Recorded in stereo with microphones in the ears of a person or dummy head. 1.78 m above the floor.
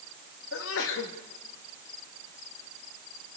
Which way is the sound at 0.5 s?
70° left (ahead or behind).